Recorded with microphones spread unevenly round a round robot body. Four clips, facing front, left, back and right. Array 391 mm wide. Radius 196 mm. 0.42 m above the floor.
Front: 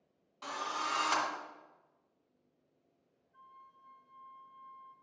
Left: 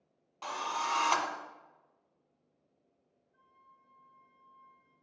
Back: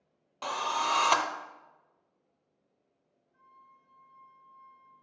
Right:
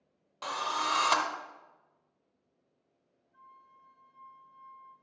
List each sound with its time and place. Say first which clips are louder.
0.4 s a drill: right 2 dB, back 7 dB; 155° right, 0.7 m
3.3 s a flute: right 7 dB, front 1 dB; 55° right, 2.5 m